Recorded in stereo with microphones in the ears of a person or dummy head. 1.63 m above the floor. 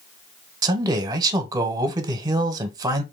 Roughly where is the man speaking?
Right.